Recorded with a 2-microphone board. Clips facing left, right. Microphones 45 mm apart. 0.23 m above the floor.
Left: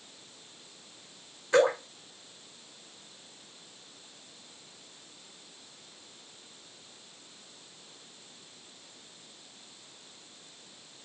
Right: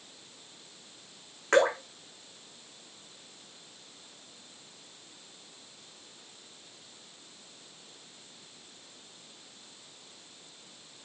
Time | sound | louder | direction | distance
1.5 | dripping | even | 85° right | 6.5 m